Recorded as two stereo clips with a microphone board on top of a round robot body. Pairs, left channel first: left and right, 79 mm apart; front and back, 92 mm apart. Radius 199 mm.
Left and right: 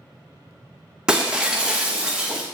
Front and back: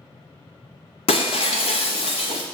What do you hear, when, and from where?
1.1 s breaking glass: 10° right, 0.6 m